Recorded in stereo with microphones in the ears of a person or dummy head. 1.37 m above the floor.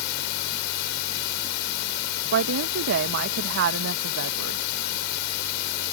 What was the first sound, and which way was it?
Running water, 65° left (ahead or behind).